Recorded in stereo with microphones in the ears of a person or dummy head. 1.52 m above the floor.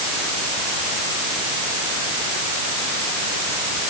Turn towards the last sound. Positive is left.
No sound to turn to.